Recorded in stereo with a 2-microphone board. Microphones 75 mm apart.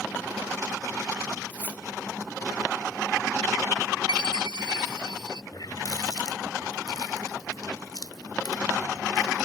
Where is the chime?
65° right (ahead or behind).